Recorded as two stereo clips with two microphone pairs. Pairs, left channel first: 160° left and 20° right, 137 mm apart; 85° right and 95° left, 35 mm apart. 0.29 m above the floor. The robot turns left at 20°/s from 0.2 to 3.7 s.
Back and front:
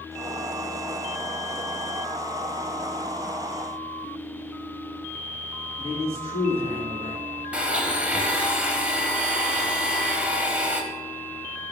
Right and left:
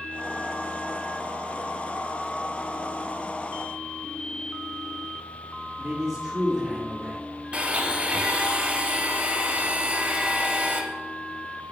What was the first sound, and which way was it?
A man speaking, 15° left.